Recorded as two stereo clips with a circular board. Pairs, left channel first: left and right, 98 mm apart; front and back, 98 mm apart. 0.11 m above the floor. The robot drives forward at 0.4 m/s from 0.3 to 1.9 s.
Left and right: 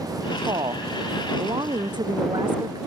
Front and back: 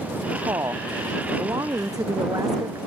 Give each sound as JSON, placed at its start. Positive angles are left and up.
{"t": 0.5, "sound": "a woman speaking", "azimuth_deg": -125}